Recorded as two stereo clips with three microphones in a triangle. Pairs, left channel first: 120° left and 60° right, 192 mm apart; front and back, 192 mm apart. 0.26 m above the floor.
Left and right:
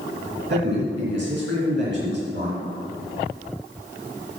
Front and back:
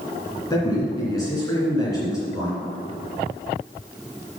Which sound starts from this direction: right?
A man speaking, at 0.5 s.